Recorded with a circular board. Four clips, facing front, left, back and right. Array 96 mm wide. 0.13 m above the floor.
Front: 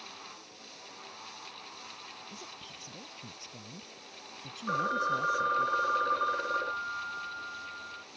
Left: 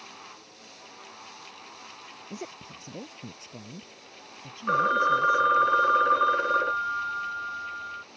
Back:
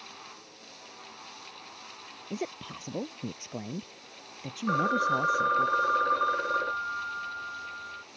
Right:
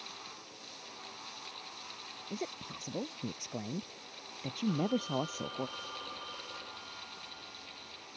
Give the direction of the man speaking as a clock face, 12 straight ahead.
6 o'clock.